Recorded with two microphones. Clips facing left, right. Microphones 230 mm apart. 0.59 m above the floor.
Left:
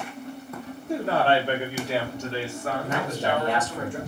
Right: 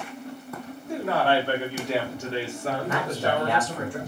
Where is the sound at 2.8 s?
25° left (ahead or behind), 1.7 m.